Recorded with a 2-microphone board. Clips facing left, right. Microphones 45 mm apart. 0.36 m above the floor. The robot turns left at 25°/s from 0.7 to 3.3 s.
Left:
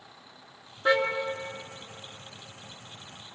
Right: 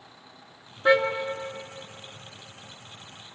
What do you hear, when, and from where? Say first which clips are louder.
0.8 s a car horn: right 4 dB; 10° right (ahead or behind), 2 m; by 1.0 s 5° right (ahead or behind), 2 m